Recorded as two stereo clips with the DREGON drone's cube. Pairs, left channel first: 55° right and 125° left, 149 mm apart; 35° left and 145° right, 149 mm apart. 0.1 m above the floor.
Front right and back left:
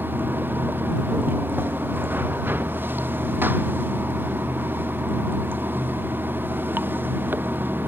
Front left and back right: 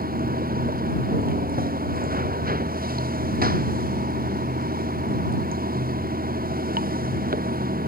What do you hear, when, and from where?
0.0 s running water: 160° right